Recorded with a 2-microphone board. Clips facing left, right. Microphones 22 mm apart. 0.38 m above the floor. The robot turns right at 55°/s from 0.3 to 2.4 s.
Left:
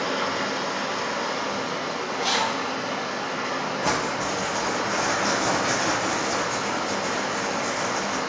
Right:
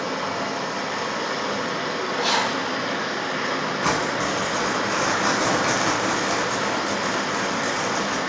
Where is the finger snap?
I don't hear a finger snap.